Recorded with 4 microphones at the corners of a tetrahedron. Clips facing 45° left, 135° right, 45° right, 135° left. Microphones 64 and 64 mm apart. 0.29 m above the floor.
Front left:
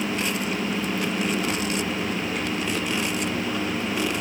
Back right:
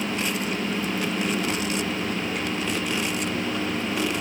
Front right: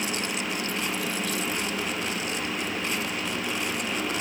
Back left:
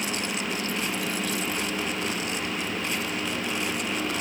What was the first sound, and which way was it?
Only background noise.